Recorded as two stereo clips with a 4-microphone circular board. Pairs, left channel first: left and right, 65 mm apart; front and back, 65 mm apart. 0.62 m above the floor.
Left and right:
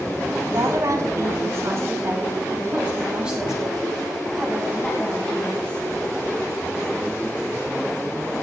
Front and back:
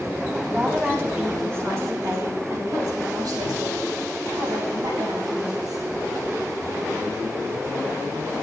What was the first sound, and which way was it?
A woman speaking, 115° right.